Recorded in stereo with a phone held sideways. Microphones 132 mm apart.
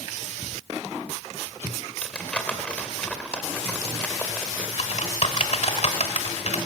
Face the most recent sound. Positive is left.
turn(degrees=55)  # may be behind; listen again after turning